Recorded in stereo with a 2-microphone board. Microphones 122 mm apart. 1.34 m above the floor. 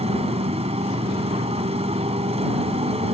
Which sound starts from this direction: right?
A motorcycle, at 0.0 s.